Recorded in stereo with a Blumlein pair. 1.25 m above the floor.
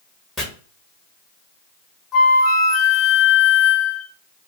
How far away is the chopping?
About 1.1 m.